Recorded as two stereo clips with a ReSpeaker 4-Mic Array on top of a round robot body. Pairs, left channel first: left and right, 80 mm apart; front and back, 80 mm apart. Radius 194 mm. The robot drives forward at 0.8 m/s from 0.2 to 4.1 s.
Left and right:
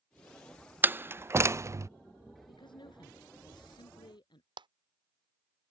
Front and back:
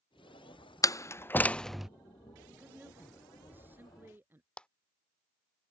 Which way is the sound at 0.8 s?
30° right.